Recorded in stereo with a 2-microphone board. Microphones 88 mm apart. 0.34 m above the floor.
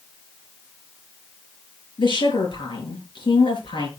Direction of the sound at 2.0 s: 65° left (ahead or behind).